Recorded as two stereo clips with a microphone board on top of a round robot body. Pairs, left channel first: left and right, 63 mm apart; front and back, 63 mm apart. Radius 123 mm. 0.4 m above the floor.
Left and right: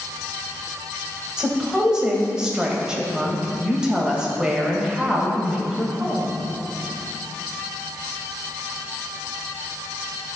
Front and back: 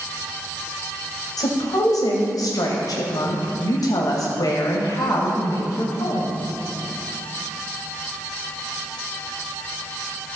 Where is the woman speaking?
10° right, 2 m.